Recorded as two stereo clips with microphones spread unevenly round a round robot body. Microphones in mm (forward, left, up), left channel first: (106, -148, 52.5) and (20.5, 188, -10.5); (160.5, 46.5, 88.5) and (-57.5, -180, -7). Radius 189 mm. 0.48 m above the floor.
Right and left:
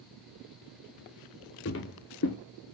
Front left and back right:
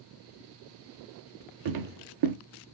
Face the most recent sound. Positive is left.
turn(degrees=-120)